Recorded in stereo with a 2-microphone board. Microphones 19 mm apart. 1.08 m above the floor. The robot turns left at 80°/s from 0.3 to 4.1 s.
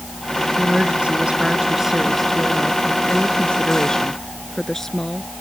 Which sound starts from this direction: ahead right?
A woman speaking, at 0.6 s.